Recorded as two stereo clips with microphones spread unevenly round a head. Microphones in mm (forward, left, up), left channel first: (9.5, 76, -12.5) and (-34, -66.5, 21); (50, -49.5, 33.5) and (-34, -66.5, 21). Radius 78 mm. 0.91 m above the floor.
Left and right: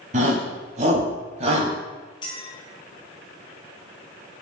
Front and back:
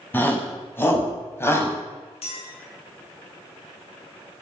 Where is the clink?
10° left, 6 m.